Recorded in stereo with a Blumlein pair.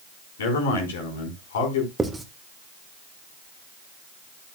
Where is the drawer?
No drawer in this recording.